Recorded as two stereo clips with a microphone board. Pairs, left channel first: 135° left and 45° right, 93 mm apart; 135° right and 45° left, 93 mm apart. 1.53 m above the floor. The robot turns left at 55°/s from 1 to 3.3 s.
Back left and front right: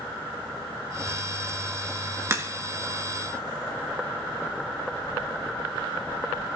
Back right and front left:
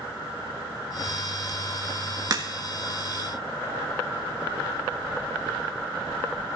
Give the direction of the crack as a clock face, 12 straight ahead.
12 o'clock.